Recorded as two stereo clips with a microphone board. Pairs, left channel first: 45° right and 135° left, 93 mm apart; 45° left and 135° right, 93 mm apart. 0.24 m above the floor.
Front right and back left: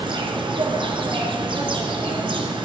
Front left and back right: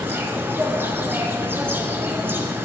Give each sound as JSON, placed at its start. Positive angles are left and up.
{"t": 0.0, "sound": "an insect", "azimuth_deg": 160, "distance_m": 1.8}